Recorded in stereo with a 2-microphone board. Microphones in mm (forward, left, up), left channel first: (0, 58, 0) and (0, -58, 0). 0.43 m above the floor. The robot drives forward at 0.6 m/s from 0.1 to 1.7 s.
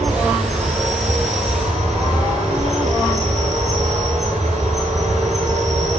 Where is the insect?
85° right, 9.5 m.